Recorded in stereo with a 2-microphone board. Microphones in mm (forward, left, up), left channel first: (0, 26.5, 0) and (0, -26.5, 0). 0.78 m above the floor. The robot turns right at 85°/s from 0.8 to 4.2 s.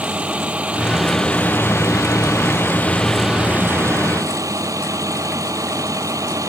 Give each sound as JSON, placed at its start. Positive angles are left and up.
{"t": 0.0, "sound": "a vehicle", "azimuth_deg": -20}